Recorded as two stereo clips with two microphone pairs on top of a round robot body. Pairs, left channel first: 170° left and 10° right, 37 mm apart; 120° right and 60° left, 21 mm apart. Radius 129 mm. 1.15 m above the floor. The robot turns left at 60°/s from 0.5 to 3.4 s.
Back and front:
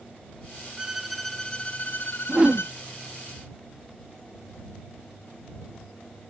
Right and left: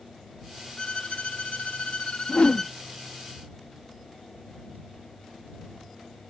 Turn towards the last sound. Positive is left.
turn(degrees=-130)